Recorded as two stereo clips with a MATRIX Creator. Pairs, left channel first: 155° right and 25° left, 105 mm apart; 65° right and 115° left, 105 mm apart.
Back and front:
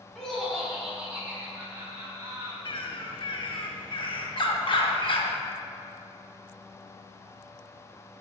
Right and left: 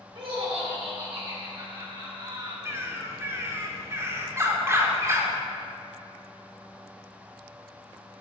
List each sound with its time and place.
0.1 s laughter: 120° left, 2 m; by 2.5 s 75° left, 2.5 m
2.6 s a bird: 175° left, 0.7 m